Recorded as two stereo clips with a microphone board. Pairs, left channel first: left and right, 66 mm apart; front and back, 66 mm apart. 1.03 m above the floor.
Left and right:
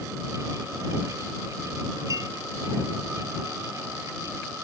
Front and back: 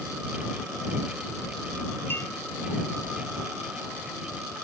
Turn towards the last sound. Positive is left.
turn(degrees=-55)